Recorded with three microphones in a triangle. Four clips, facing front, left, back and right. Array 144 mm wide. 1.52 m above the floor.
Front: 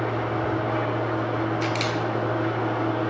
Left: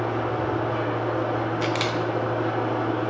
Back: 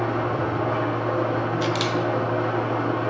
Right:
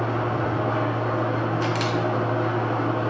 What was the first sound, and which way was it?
An engine running, 120° right.